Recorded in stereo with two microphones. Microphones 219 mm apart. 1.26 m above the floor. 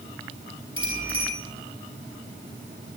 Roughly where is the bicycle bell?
Left.